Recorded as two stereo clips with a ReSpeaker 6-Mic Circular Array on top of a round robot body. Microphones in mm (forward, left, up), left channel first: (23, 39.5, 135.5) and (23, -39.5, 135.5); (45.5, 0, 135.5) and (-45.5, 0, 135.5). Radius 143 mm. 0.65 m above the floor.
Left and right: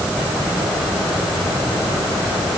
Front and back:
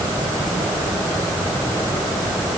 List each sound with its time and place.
Only background noise.